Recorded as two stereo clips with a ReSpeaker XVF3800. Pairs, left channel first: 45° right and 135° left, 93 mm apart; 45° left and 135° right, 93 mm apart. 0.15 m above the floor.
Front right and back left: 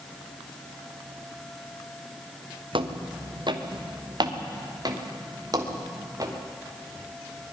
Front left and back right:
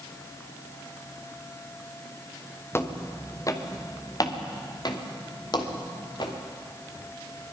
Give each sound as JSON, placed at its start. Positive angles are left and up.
{"t": 2.7, "sound": "footsteps", "azimuth_deg": 110, "distance_m": 1.8}